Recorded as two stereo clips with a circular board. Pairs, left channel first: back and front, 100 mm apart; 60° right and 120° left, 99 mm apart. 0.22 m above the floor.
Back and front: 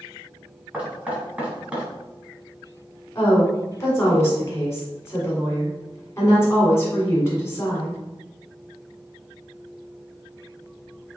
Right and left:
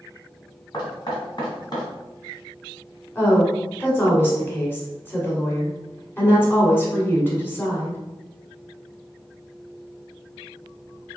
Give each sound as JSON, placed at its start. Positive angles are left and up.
{"t": 0.7, "sound": "knocking", "azimuth_deg": -70, "distance_m": 1.3}
{"t": 3.1, "sound": "a woman speaking", "azimuth_deg": -120, "distance_m": 1.8}